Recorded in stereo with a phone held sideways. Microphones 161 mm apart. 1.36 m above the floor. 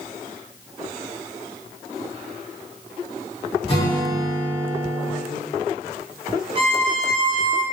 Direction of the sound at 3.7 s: 35° left (ahead or behind).